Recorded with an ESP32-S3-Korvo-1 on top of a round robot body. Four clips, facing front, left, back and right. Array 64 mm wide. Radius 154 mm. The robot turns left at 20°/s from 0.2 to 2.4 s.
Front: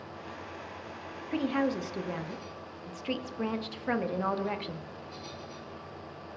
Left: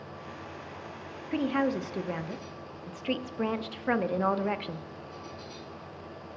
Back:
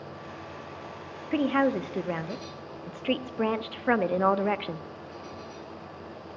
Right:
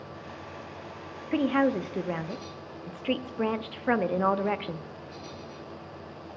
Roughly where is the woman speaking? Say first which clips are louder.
Right 3 dB, back 5 dB; behind right.